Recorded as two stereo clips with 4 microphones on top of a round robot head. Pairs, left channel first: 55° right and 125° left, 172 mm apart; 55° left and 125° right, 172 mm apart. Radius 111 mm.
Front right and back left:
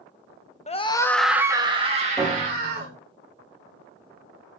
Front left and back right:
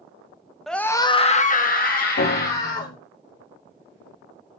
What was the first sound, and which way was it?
A scream, 35° right.